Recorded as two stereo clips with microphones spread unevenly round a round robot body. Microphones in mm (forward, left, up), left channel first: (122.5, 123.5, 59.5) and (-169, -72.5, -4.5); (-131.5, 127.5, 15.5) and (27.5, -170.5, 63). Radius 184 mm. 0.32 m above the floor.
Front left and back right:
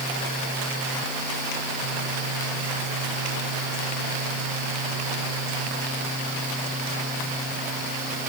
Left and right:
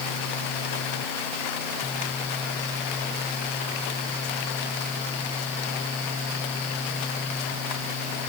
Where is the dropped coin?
I don't hear a dropped coin.